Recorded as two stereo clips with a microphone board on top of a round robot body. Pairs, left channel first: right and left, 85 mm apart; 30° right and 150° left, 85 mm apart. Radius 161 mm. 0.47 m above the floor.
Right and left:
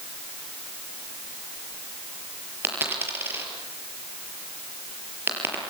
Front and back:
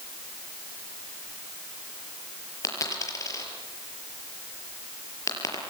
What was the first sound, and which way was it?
A dropped coin, 25° left.